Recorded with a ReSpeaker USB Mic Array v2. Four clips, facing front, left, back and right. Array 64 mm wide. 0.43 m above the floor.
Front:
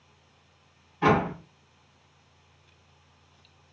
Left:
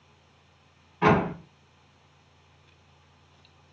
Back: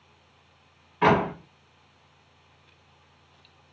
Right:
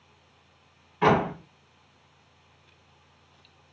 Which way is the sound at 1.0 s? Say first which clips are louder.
Even, back 2 dB; 160° right.